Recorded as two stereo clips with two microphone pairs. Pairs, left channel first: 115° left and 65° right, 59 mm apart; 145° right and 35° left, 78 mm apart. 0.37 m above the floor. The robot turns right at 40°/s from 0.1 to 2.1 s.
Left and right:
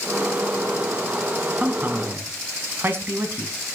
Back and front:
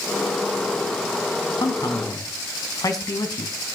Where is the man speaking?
135° right, 2.5 m; by 3.5 s 110° right, 2.5 m.